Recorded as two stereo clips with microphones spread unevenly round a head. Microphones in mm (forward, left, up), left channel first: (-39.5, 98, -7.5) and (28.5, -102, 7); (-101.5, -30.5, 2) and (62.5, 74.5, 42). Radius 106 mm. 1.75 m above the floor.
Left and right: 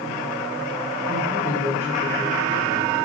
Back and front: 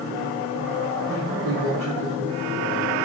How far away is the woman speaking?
About 1.6 m.